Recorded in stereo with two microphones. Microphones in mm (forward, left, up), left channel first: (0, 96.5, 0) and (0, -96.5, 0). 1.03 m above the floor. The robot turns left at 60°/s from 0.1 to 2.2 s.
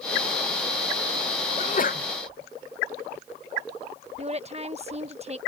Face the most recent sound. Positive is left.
turn(degrees=-35)  # may be behind; listen again after turning